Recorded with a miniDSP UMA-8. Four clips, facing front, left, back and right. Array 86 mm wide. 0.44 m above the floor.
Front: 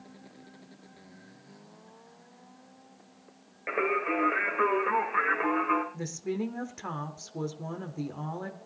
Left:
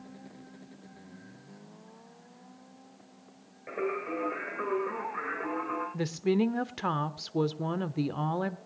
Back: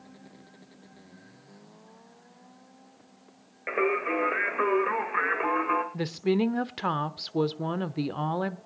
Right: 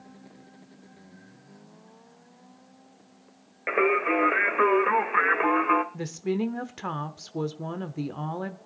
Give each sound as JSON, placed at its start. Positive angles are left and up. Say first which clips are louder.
{"t": 3.7, "sound": "singing", "louder": "right 9 dB, back 2 dB", "azimuth_deg": -95, "distance_m": 1.8}
{"t": 5.9, "sound": "a woman speaking", "louder": "left 1 dB, back 7 dB", "azimuth_deg": 165, "distance_m": 0.9}